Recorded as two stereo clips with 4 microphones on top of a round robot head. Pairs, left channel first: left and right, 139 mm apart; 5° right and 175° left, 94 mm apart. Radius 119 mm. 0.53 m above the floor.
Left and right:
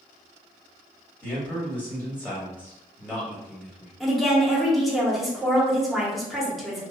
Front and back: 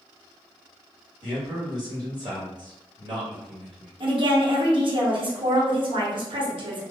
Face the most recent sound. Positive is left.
turn(degrees=180)